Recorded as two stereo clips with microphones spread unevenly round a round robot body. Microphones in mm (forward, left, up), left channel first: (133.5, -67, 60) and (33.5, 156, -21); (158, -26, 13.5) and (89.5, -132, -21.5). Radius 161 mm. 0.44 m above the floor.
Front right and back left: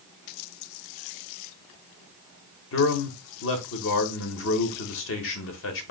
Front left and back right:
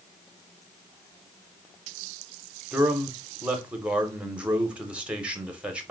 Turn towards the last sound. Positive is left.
turn(degrees=-80)